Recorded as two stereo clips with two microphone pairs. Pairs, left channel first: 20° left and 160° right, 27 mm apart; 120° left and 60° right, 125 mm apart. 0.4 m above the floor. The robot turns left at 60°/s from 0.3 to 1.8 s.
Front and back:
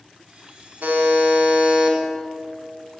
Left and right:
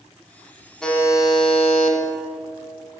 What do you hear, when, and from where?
0.8 s a buzzer: 155° right, 0.8 m; by 2.0 s 145° left, 0.8 m